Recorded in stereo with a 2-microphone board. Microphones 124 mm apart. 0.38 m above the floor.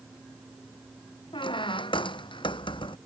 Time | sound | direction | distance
1.3 | a squeak | 40° left (ahead or behind) | ?